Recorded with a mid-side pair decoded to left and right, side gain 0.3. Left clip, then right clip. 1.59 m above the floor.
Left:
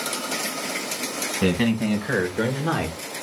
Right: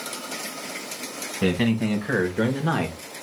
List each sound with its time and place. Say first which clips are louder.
1.4 s a man speaking: even; 15° left, 1.4 m; by 3.0 s 20° right, 1.4 m